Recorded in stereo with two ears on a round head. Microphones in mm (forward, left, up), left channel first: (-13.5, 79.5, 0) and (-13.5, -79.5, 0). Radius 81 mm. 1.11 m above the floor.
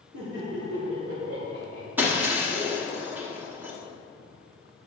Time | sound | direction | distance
0.1 | laughter | 75° right (ahead or behind) | 3 m
2.0 | breaking glass | 10° right (ahead or behind) | 1.1 m